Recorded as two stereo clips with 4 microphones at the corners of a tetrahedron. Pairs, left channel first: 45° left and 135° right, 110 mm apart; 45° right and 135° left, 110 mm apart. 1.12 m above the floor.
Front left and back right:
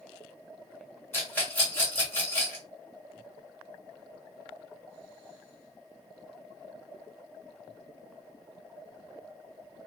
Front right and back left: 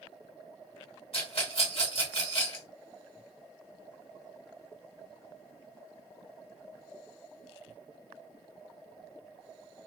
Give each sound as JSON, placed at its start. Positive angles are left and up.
{"t": 1.1, "sound": "a rattle", "azimuth_deg": -25, "distance_m": 1.6}